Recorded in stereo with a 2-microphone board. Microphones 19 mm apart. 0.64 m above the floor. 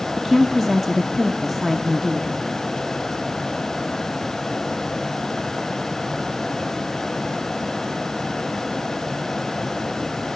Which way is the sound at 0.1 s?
5° left (ahead or behind).